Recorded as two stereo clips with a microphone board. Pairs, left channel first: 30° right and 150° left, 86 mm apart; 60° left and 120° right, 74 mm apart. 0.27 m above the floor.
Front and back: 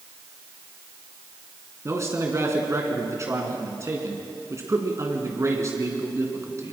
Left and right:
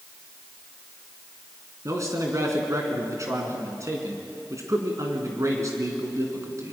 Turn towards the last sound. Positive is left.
turn(degrees=-160)